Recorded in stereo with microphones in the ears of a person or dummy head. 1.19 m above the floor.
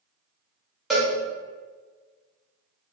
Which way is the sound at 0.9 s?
Centre (ahead or behind).